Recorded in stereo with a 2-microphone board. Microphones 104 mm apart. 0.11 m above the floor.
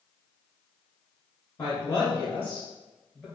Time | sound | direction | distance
1.6 | a woman speaking | 20° left (ahead or behind) | 1.3 m